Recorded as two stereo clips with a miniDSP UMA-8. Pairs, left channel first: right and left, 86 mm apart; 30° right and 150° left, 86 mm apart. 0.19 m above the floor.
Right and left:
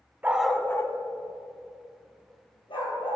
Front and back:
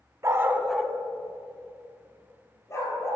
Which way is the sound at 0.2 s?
145° left.